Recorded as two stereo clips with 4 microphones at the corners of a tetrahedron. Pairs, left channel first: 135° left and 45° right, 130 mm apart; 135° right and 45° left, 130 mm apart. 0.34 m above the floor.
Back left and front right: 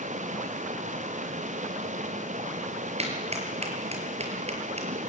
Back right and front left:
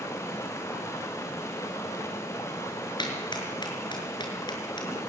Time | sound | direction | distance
0.0 | running water | 65° right | 3 m
3.0 | a clap | 80° right | 6 m